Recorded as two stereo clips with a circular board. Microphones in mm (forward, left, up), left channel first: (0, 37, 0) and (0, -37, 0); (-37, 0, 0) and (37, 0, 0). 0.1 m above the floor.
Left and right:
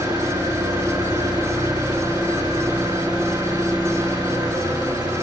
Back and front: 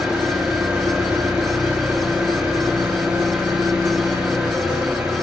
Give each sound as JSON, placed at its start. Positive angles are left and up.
{"t": 0.0, "sound": "an engine running", "azimuth_deg": -80, "distance_m": 4.5}